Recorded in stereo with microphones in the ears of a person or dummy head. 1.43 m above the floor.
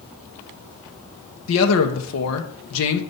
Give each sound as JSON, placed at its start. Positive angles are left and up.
{"t": 1.5, "sound": "a man speaking", "side_deg": 75, "distance_m": 1.1}